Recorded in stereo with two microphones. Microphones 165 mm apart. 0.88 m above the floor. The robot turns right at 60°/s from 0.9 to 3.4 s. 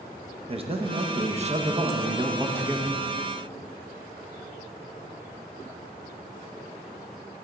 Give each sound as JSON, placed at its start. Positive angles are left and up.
{"t": 0.5, "sound": "a man speaking", "azimuth_deg": -120, "distance_m": 0.7}